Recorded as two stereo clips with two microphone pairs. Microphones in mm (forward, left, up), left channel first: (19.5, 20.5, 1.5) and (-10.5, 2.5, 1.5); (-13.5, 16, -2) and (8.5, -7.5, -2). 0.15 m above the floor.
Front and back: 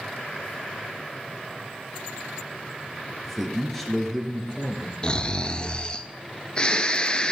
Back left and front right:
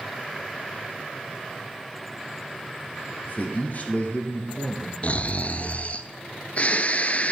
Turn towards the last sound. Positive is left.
turn(degrees=95)